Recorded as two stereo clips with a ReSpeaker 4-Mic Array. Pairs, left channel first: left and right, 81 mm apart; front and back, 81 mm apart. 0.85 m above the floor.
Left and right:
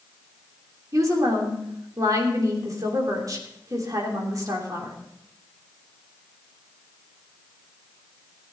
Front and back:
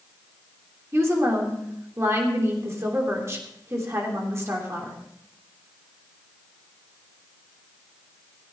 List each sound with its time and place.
0.9 s a woman speaking: 130° right, 3 m